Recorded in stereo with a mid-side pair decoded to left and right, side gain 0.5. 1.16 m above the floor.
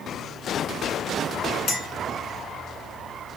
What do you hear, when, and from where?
1.7 s a clink: 70° left, 4 m